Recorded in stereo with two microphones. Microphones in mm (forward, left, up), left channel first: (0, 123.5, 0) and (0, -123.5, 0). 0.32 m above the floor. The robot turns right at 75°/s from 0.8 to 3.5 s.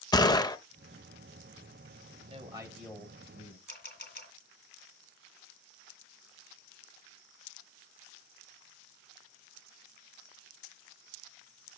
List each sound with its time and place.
0.1 s a gunshot: 15° left (ahead or behind), 0.5 m
2.2 s a man speaking: 50° right, 1.7 m; by 3.6 s 50° left, 1.7 m
3.7 s a camera shutter: 45° left (ahead or behind), 1.7 m